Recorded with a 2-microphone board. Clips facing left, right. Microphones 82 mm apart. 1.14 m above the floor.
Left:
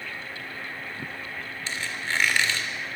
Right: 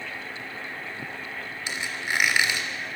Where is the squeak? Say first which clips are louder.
Right 1 dB; 15° right (ahead or behind), 3 m.